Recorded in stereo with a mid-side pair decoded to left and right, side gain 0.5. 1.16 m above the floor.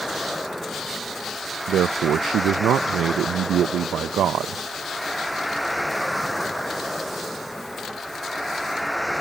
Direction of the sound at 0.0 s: Straight ahead.